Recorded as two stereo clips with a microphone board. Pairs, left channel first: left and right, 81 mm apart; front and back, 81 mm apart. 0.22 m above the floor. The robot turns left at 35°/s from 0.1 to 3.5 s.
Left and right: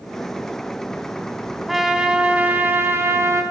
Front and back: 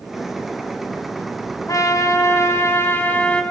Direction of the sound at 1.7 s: 5° right.